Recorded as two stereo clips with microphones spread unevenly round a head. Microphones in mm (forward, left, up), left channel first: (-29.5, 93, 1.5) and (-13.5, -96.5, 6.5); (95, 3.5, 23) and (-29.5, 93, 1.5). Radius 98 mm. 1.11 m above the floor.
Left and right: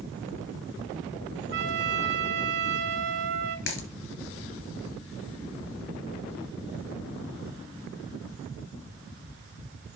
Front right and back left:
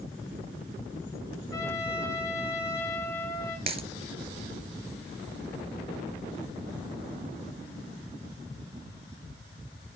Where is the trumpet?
105° right, 2 m.